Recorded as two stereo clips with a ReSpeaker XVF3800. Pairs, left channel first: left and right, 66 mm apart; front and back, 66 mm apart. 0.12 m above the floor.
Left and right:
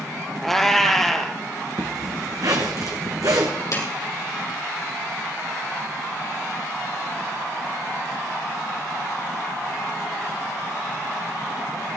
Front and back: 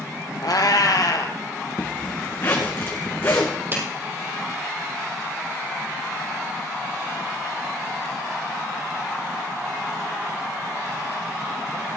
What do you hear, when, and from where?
0.4 s a cat meowing: 5° left, 1.5 m
1.8 s a zipper: 60° right, 2.5 m
3.7 s a clap: 120° left, 3 m